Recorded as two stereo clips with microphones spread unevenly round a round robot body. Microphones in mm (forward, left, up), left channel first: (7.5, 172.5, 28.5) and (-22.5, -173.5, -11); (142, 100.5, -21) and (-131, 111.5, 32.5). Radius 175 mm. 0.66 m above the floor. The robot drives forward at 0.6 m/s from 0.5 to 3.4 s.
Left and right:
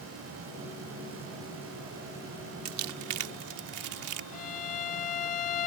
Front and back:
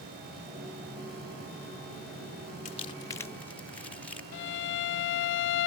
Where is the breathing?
I don't hear breathing.